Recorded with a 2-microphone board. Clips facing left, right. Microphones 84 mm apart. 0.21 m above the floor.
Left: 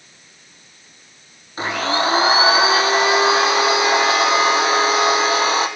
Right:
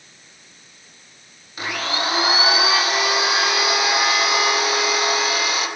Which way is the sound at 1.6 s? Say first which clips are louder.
Left 5 dB; 35° left (ahead or behind).